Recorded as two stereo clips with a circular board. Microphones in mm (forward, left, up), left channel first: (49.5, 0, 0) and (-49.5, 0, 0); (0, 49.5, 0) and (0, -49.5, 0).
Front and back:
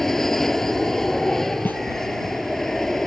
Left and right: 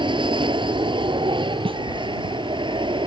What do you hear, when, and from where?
0.0 s an aircraft: 85° right
1.6 s a snare drum: 70° right